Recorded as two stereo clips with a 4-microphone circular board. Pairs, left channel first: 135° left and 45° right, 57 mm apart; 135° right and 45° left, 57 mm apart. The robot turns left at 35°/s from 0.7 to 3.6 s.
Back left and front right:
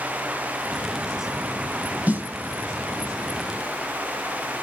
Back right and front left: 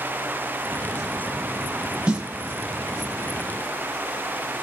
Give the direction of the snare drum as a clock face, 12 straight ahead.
12 o'clock.